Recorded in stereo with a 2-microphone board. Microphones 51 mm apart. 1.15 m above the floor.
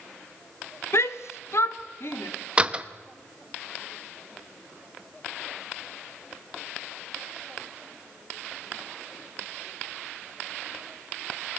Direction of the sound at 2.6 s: 25° right (ahead or behind).